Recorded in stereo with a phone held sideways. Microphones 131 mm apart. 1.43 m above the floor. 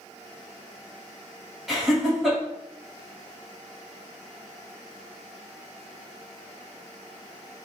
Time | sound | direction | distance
1.7 | laughter | centre (ahead or behind) | 1.5 m